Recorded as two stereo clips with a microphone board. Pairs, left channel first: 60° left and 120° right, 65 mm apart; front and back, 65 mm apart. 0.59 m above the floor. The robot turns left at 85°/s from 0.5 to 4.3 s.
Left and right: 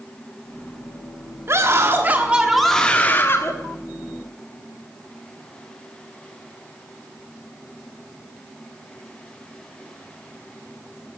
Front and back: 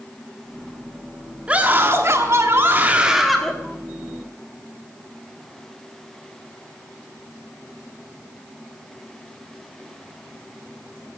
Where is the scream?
115° right, 1.3 m; by 3.5 s 70° left, 1.3 m.